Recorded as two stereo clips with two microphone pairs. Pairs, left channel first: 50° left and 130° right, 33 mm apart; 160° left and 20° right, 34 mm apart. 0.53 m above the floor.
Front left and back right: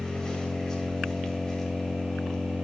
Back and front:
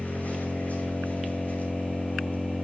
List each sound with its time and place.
0.0 s an engine running: 120° left, 3 m